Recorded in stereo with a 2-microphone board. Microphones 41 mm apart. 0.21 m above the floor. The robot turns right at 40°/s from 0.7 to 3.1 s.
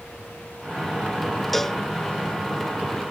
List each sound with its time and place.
1.5 s a cowbell: 5° left (ahead or behind); by 1.8 s 15° left (ahead or behind)